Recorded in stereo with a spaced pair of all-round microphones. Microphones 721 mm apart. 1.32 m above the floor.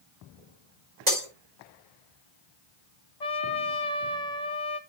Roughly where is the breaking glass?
Right.